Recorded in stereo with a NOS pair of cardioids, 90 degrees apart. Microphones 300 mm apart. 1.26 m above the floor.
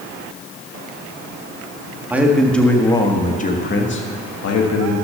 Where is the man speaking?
5° right, 1.9 m; by 5.0 s 65° left, 1.9 m.